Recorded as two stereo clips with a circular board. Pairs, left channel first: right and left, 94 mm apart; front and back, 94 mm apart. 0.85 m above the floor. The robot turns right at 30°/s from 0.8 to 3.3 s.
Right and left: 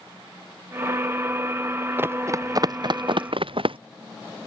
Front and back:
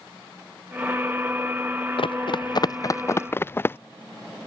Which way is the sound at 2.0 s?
20° left.